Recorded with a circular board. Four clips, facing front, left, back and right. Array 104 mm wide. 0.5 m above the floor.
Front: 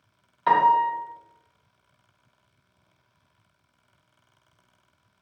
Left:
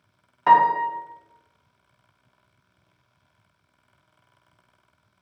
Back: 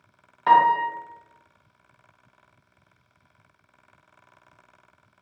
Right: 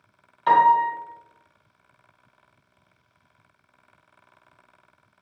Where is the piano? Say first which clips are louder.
Even, back 1 dB; 100° left, 0.6 m.